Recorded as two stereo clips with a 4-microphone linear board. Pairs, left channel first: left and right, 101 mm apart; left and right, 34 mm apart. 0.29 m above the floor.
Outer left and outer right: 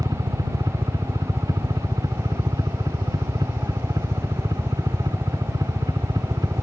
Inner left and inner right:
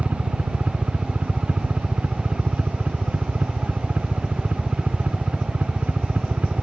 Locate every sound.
0.0 s a helicopter: 40° right (ahead or behind)